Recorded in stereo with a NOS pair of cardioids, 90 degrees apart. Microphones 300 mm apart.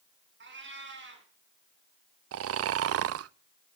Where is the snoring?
50° right, 0.6 m.